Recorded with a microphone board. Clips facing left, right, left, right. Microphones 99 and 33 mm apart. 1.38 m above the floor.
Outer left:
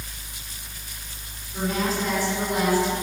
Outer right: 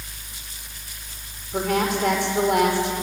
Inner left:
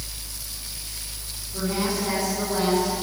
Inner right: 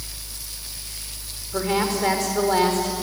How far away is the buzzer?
I don't hear a buzzer.